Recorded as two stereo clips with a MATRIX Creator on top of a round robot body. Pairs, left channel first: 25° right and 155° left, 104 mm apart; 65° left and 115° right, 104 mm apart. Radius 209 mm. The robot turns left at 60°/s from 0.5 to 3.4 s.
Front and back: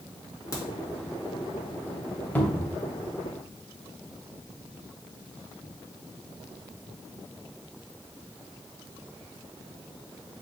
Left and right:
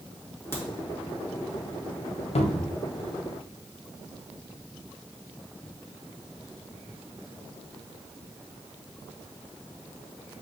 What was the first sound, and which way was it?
A crack, 15° left.